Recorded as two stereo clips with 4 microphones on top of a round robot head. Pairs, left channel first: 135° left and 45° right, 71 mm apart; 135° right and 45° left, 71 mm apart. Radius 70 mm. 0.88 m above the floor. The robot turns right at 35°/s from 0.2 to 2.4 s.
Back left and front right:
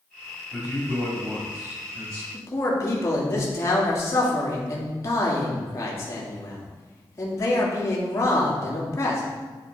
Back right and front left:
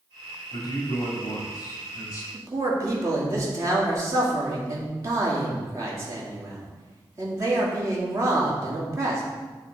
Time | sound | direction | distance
0.5 | a man speaking | 145° right | 2.5 m
2.3 | a man speaking | 85° left | 2 m